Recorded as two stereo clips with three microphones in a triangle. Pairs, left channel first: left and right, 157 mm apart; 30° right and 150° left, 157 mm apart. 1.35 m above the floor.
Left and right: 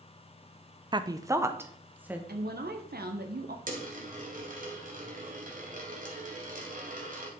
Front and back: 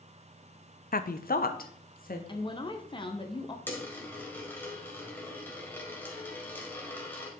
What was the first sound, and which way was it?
A woman speaking, 30° right.